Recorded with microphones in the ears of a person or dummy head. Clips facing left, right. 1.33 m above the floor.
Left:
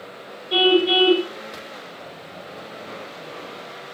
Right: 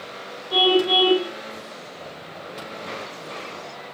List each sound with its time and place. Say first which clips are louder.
0.5 s a car horn: left 2 dB; 35° left (ahead or behind), 8 m